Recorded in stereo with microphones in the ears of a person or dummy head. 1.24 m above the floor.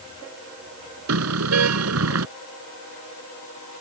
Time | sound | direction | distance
1.1 | a car horn | 80° right | ?